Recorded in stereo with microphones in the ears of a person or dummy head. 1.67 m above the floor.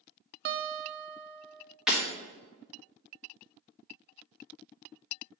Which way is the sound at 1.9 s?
5° right (ahead or behind).